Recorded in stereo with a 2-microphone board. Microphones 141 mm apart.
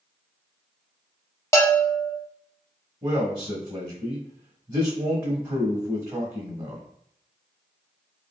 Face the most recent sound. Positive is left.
turn(degrees=-15)  # may be behind; listen again after turning